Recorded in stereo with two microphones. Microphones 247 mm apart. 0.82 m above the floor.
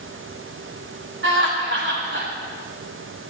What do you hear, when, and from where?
1.2 s laughter: 55° right (ahead or behind), 3 m